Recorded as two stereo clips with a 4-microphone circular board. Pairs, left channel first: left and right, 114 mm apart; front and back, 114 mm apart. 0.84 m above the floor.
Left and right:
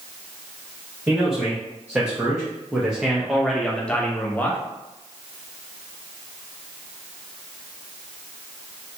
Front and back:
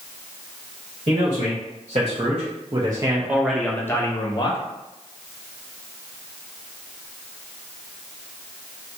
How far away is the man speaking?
About 1.6 m.